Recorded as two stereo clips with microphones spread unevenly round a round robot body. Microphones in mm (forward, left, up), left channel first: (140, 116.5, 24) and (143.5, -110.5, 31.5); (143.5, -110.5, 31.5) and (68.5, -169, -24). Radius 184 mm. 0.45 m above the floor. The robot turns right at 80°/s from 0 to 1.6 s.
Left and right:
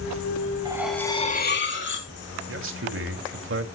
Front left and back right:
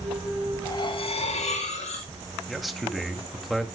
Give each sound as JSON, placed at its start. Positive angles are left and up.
{"t": 0.7, "sound": "cutlery clinking", "azimuth_deg": -20, "distance_m": 3.0}
{"t": 2.5, "sound": "a man speaking", "azimuth_deg": -65, "distance_m": 2.0}